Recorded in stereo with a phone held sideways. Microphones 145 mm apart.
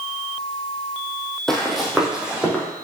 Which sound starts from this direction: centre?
Running footsteps, at 1.5 s.